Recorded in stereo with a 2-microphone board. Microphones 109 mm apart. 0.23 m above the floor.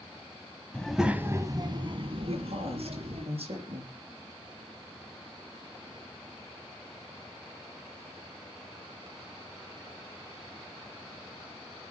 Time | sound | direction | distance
0.7 | a child speaking | 10° left (ahead or behind) | 1.2 m
2.2 | a woman speaking | 60° right (ahead or behind) | 5.5 m